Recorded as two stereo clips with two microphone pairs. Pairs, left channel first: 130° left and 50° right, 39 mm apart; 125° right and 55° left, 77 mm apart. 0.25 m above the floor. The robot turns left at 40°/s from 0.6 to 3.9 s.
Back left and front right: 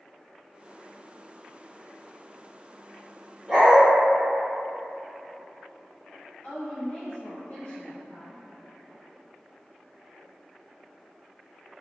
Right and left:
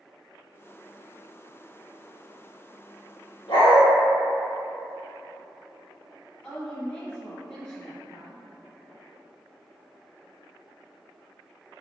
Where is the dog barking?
120° right, 1.5 m; by 3.8 s 135° right, 1.5 m.